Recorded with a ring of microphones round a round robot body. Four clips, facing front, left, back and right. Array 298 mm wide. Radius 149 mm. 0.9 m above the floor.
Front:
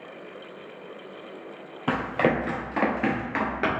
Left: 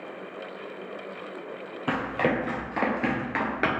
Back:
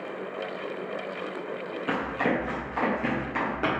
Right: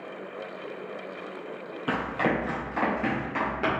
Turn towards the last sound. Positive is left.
turn(degrees=75)